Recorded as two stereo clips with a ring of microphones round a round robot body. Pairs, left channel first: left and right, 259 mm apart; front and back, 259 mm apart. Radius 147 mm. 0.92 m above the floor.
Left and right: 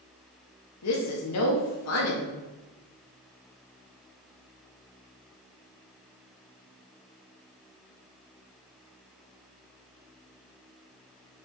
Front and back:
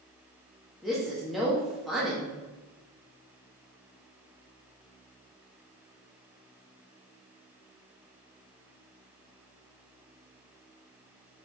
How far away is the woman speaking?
About 1.7 m.